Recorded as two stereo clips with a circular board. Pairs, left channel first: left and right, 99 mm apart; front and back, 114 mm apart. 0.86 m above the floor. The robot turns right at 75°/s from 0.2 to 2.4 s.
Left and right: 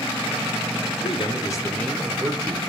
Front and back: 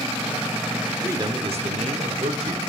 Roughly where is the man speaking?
Left.